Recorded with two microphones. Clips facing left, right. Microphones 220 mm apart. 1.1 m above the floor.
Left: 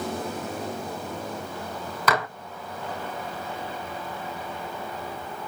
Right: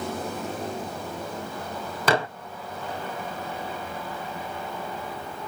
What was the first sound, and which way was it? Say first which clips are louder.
Dishes clattering: right 3 dB; 30° right (ahead or behind).